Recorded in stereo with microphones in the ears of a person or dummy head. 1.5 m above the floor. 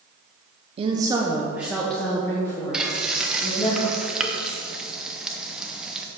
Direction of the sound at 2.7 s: Centre (ahead or behind).